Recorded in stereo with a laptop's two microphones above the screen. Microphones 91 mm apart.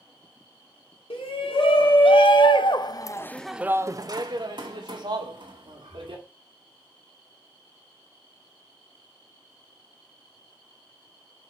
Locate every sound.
1.1 s a shout: 75° left (ahead or behind), 2 m; by 6.2 s 80° right, 2.5 m